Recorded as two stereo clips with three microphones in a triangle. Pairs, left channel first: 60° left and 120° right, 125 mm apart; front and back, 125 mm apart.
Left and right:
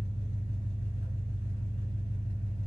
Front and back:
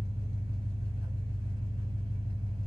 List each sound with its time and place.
0.0 s an engine running: 125° right, 1.7 m